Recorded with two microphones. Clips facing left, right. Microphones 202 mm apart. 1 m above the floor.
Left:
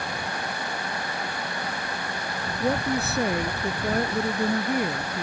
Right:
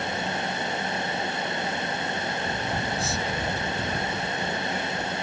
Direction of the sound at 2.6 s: 60° left (ahead or behind).